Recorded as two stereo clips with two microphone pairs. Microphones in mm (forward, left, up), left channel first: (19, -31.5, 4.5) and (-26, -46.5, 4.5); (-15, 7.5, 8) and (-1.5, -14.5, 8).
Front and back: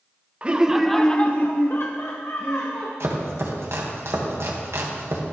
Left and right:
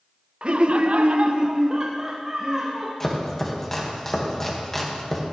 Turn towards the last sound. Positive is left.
turn(degrees=-170)